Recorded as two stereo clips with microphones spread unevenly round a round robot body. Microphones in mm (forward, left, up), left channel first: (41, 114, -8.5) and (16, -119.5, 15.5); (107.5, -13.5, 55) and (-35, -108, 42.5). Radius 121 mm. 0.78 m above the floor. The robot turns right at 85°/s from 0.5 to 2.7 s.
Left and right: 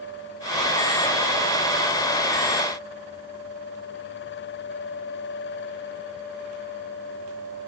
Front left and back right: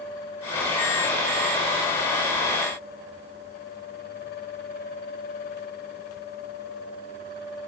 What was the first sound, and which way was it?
Only background noise.